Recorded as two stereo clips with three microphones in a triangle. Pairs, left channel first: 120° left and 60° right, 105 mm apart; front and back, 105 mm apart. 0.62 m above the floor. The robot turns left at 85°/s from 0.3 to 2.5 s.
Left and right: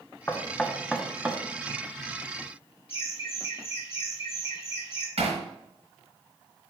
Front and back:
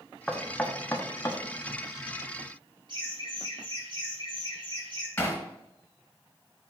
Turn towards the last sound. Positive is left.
turn(degrees=-65)